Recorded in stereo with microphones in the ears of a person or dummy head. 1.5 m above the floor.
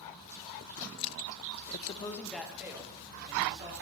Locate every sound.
1.7 s a man speaking: 50° left (ahead or behind), 0.8 m; by 3.7 s 25° right (ahead or behind), 3 m